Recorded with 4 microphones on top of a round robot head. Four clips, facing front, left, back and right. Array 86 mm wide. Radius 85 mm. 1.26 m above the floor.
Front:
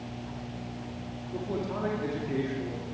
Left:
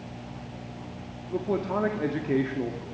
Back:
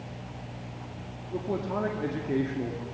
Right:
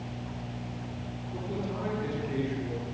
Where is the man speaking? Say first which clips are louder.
Left 8 dB, back 2 dB; 110° left, 2.5 m.